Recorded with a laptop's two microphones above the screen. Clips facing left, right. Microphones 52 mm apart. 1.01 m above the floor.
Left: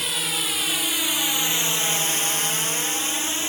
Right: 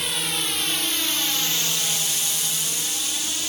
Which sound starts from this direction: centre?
A drone, at 0.0 s.